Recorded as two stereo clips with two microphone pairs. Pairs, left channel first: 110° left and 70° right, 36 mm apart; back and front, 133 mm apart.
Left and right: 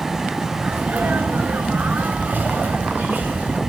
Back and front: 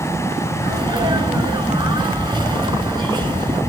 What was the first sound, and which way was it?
A sneeze, 50° right.